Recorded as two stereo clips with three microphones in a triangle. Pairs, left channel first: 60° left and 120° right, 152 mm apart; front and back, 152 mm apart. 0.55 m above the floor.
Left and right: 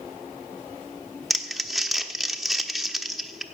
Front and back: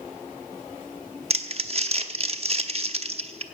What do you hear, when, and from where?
1.3 s crumpling: 150° left, 0.9 m